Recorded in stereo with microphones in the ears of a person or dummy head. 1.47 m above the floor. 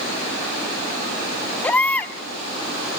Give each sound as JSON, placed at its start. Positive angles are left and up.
{"t": 1.6, "sound": "a baby crying", "side_deg": 10, "distance_m": 0.9}